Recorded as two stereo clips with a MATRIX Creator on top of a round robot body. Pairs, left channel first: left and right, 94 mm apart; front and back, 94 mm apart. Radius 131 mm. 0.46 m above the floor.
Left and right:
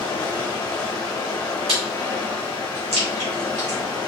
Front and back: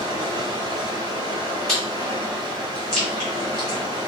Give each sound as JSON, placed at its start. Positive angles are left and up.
{"t": 0.0, "sound": "running water", "azimuth_deg": 140, "distance_m": 1.3}
{"t": 1.7, "sound": "chewing", "azimuth_deg": -85, "distance_m": 1.9}